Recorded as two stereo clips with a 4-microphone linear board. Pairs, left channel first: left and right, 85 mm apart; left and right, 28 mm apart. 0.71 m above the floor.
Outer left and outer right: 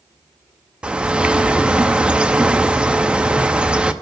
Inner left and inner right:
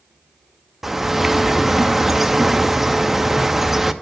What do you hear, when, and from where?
0.8 s a bird: 10° right (ahead or behind), 0.6 m